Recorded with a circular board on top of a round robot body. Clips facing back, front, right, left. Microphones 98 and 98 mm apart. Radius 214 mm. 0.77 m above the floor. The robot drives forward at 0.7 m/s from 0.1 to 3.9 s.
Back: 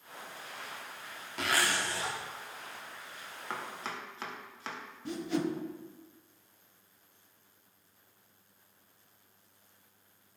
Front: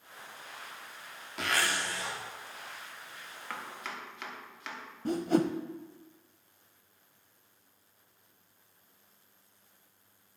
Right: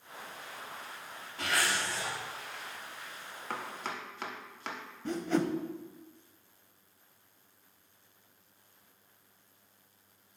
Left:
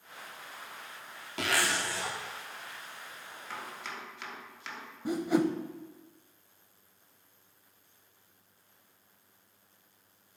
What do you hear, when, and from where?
1.4 s a zipper: 90° left, 0.7 m; by 2.2 s 130° left, 0.9 m
3.5 s chopping: 115° right, 1.2 m; by 4.8 s 130° right, 1.3 m
5.0 s a whoosh: 15° left, 0.7 m